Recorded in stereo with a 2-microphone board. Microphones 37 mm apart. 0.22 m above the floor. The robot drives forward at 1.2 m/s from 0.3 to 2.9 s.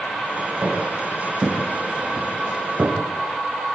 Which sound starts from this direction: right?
Footsteps, at 0.6 s.